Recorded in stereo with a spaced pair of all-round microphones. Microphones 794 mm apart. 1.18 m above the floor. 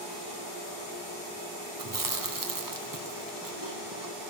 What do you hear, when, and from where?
1.8 s chewing: 25° right (ahead or behind), 0.7 m